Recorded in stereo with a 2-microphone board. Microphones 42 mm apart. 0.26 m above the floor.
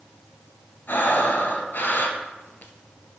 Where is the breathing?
50° left (ahead or behind), 0.6 m.